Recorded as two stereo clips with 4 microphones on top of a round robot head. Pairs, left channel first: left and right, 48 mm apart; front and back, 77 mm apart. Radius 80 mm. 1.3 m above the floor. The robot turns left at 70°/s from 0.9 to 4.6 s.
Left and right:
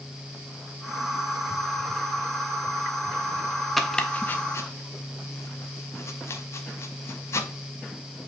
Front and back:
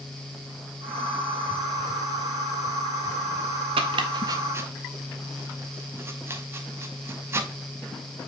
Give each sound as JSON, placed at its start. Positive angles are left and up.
{"t": 3.8, "sound": "chopping", "azimuth_deg": 180, "distance_m": 0.6}